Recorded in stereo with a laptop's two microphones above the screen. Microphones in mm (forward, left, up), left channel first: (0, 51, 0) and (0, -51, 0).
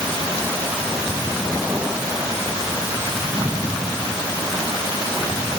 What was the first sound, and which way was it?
Only background noise.